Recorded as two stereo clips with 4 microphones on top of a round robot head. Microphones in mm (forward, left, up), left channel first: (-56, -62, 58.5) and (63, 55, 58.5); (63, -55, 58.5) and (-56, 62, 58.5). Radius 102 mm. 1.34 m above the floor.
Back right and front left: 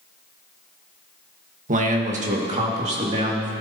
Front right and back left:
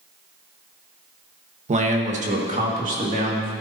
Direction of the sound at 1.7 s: 85° left.